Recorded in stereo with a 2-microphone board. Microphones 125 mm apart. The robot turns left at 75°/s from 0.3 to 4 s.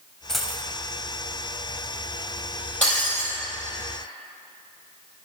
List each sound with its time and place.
0.3 s a dropped coin: 5° left (ahead or behind), 0.8 m; by 0.6 s 20° right (ahead or behind), 0.8 m
2.8 s breaking glass: 170° left, 4 m; by 3.3 s 130° left, 4 m